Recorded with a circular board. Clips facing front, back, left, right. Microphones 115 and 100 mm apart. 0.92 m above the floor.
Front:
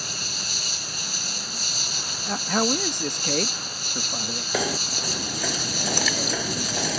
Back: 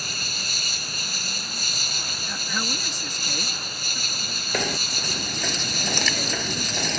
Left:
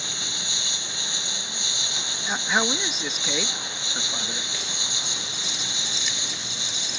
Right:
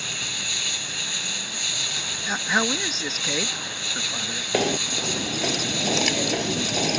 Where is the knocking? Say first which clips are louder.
Front 1 dB, right 13 dB; 85° right.